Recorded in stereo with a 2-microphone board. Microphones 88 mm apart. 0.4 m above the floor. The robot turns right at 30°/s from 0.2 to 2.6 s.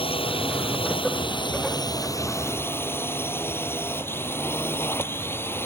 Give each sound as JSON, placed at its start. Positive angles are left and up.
{"t": 0.0, "sound": "a drone", "azimuth_deg": 80}